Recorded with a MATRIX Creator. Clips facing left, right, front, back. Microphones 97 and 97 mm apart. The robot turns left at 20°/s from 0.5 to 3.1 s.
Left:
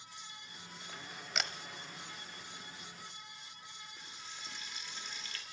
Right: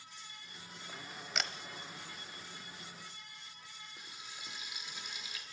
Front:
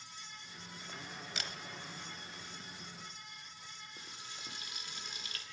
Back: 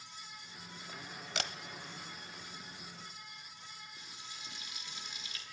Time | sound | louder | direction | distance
1.4 | a camera shutter | even, back 6 dB | straight behind | 0.7 m
4.0 | frying | right 1 dB, front 1 dB | 15° right | 1.8 m